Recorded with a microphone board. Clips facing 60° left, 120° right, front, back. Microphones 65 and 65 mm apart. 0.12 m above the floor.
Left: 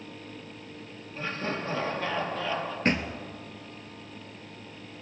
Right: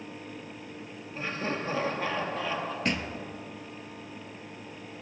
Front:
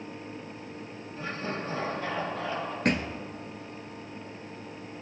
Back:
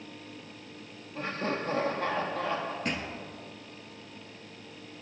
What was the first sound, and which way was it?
Laughter, 170° left.